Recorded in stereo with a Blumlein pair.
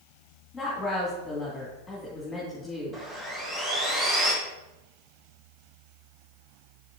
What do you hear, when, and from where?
0.5 s a woman speaking: 15° left, 2.5 m
2.9 s sawing: 15° right, 2.0 m